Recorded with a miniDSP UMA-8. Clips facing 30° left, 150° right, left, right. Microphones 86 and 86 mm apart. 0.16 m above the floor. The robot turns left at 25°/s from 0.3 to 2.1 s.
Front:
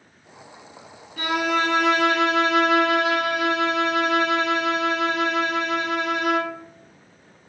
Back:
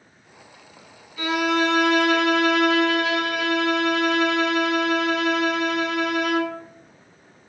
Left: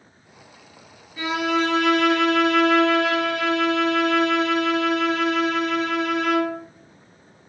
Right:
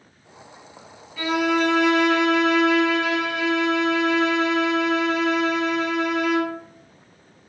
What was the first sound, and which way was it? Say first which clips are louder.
A violin: back 1 dB, right 1 dB; 30° left.